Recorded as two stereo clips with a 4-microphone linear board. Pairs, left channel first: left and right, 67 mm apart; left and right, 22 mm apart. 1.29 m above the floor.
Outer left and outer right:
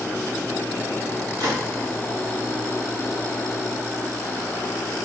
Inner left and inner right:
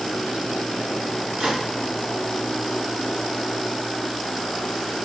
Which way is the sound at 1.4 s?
80° right.